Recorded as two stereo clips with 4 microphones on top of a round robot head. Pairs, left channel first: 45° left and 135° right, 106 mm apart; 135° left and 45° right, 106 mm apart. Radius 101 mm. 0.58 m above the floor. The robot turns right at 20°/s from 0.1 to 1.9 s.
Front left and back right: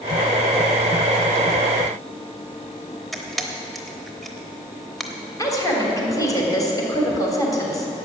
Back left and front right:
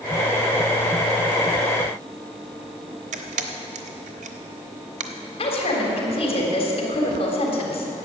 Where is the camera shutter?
45° right, 0.8 m.